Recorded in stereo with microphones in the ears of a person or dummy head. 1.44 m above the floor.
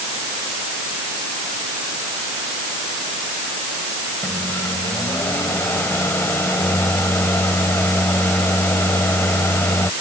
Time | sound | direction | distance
4.2 | a microwave | 10° left (ahead or behind) | ?